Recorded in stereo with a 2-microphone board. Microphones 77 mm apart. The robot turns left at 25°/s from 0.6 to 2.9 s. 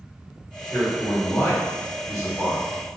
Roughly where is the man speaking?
Behind.